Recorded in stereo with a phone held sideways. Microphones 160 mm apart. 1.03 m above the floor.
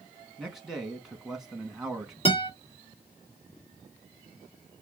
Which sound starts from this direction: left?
A guitar, at 2.2 s.